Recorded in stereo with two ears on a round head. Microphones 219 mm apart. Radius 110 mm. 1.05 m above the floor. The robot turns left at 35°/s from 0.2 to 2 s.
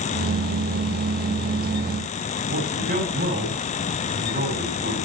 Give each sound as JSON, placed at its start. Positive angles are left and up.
{"t": 2.5, "sound": "a man speaking", "side_deg": -35, "distance_m": 8.0}